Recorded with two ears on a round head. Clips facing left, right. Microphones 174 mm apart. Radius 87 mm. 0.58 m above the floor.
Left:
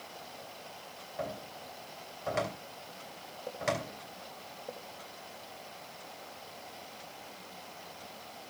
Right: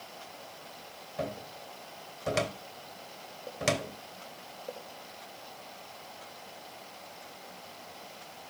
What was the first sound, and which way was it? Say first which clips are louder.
A cupboard door: right 3 dB; 40° right (ahead or behind).